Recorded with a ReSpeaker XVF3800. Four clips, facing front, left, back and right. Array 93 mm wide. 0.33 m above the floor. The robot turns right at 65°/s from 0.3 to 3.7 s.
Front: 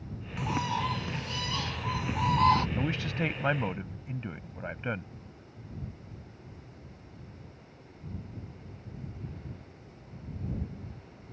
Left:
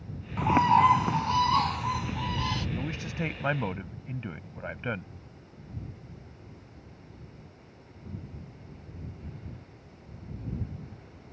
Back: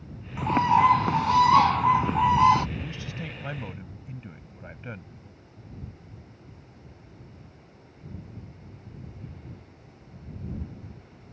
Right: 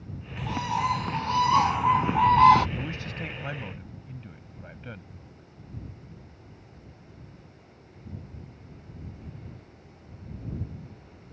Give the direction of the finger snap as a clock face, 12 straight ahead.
I don't hear a finger snap.